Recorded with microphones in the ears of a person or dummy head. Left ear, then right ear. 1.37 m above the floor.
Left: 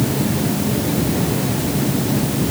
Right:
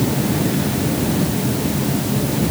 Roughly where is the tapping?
No tapping in this recording.